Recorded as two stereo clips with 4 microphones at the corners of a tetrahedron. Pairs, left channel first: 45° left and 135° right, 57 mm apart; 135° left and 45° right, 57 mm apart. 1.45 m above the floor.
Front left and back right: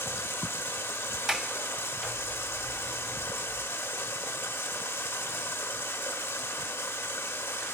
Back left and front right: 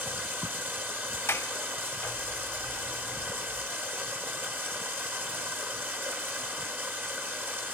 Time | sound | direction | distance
0.0 | running water | 5° left | 1.5 m
1.3 | a sliding door | 150° left | 0.7 m